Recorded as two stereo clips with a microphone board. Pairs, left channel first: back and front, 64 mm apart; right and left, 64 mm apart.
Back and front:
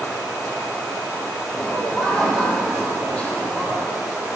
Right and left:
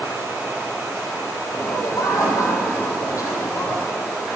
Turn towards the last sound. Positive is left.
turn(degrees=-120)